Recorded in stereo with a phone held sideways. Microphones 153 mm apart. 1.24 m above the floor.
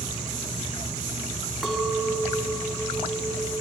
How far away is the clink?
About 1.2 m.